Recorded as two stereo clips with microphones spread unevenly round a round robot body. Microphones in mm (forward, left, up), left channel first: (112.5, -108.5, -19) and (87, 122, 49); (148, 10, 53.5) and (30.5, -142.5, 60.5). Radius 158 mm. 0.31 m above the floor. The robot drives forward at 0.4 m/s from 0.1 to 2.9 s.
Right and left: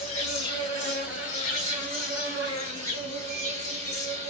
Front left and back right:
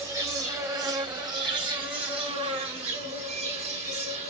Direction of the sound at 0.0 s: 55° right.